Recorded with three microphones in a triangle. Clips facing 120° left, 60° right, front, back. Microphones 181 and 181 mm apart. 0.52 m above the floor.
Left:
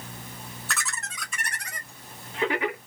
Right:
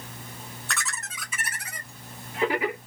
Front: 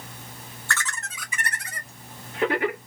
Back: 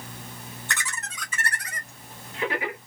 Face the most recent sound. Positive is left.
turn(degrees=20)